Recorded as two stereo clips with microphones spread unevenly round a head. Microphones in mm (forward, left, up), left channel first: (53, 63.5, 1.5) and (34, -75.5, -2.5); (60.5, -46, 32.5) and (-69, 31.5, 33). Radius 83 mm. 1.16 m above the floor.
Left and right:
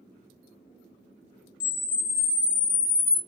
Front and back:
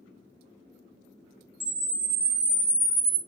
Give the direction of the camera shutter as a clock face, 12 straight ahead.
9 o'clock.